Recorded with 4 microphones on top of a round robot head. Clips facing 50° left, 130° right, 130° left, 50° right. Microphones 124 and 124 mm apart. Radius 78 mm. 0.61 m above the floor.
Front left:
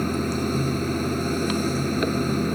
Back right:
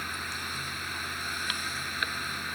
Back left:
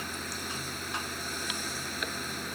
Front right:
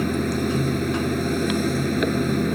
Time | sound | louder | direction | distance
0.0 | running water | front left 16 dB, front right 17 dB | 10° right | ?